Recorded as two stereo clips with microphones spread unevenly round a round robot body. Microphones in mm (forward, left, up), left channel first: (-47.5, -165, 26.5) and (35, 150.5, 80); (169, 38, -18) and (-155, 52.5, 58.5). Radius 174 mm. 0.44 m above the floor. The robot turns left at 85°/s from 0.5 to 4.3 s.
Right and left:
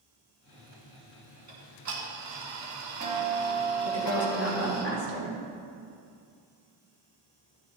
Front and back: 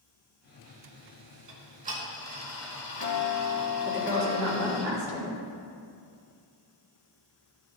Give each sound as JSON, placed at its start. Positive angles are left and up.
{"t": 1.5, "sound": "ticking", "azimuth_deg": 145, "distance_m": 2.5}
{"t": 3.9, "sound": "a woman speaking", "azimuth_deg": -115, "distance_m": 3.5}